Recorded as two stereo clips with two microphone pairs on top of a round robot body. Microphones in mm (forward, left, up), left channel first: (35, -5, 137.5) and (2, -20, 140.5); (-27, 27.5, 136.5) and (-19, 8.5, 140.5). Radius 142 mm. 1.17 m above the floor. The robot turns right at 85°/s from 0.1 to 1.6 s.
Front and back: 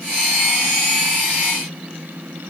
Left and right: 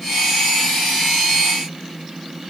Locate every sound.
Only background noise.